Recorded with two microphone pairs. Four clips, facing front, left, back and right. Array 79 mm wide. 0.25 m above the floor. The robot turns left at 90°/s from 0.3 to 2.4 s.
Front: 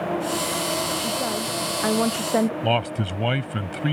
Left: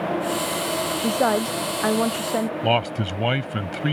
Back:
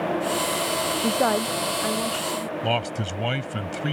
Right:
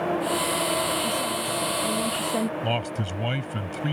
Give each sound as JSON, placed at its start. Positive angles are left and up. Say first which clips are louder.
{"t": 1.0, "sound": "a woman speaking", "louder": "left 6 dB, back 4 dB", "azimuth_deg": 140}
{"t": 2.6, "sound": "a man speaking", "louder": "left 6 dB, front 2 dB", "azimuth_deg": 70}